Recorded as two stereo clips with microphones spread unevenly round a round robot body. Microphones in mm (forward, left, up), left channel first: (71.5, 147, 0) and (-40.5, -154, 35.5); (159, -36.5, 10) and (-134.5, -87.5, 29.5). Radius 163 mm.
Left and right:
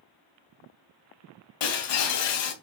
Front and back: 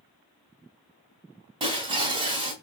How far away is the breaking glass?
About 2.5 m.